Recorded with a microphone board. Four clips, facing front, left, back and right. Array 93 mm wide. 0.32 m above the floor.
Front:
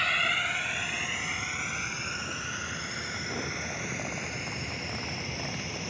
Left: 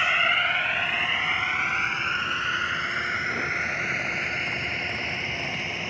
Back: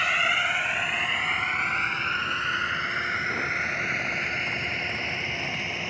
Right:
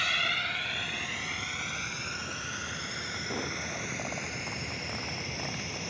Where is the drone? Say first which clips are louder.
Left 8 dB, back 4 dB; 115° left; by 5.9 s 135° left.